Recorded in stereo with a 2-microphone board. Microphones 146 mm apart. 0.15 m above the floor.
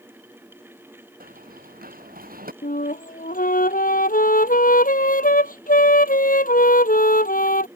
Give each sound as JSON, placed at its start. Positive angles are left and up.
{"t": 1.2, "sound": "running footsteps", "side_deg": -90}
{"t": 2.6, "sound": "a flute", "side_deg": 75}